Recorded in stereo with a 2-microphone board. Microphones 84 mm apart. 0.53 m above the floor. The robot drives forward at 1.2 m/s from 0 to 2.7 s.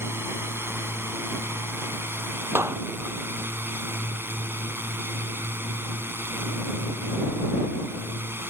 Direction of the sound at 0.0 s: 30° right (ahead or behind).